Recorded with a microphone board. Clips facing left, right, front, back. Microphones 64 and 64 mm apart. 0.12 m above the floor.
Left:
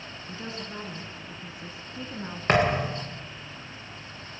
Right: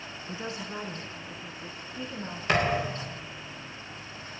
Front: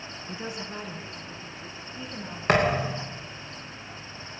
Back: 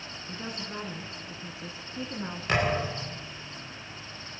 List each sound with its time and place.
0.3 s a woman speaking: 60° right, 1.6 m; by 2.4 s 155° left, 1.8 m
2.5 s a thud: 40° left, 4 m